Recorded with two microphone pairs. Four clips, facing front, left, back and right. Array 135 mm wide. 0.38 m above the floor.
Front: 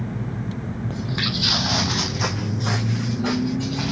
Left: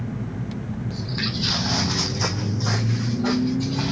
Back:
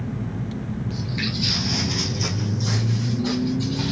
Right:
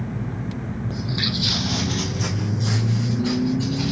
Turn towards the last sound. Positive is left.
turn(degrees=50)